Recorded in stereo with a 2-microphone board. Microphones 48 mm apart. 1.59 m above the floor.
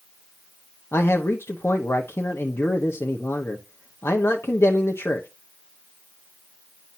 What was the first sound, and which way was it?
A man speaking, 70° left (ahead or behind).